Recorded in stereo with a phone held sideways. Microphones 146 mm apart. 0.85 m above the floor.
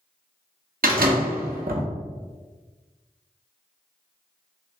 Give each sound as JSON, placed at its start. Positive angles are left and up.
{"t": 0.8, "sound": "a door slam", "side_deg": -80, "distance_m": 0.9}